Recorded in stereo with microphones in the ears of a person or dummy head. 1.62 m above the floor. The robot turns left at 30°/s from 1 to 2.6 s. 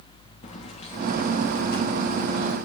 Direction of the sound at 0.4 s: 35° left (ahead or behind).